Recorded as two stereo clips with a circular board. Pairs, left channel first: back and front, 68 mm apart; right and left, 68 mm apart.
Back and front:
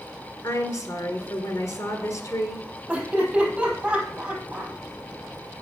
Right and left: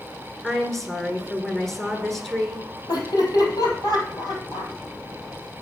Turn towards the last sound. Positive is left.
turn(degrees=-75)